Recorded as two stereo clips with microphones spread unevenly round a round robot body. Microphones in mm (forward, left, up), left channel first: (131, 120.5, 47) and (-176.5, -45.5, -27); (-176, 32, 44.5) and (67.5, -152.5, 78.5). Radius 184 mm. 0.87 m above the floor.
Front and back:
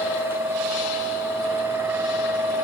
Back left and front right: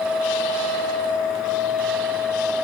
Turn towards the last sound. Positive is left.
No sound to turn to.